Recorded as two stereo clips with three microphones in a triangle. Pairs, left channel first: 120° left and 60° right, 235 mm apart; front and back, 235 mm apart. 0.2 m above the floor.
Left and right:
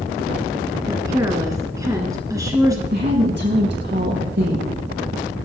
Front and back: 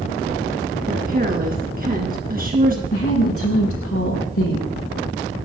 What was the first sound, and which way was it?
A woman speaking, 135° right.